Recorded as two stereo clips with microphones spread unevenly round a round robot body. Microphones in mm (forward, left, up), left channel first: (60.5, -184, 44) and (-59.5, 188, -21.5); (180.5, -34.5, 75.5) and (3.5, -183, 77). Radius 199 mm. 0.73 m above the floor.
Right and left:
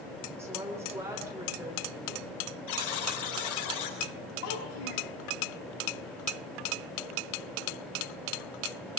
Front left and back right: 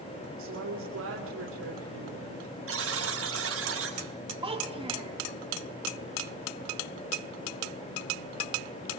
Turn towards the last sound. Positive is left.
turn(degrees=-70)